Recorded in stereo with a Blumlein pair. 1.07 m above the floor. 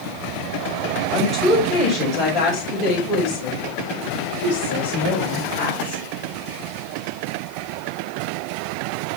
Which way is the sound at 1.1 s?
15° left.